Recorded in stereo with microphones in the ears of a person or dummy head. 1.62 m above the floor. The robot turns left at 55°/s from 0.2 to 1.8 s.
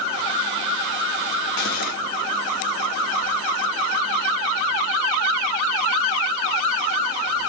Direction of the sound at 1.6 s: 50° left (ahead or behind).